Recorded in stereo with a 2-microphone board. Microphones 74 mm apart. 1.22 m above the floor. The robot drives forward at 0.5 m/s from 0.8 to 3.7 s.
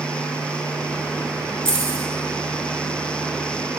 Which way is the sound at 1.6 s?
30° right (ahead or behind).